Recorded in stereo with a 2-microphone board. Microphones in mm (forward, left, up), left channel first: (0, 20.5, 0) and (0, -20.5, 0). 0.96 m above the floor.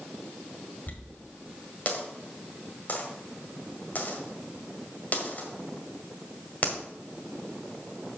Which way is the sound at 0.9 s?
45° left (ahead or behind).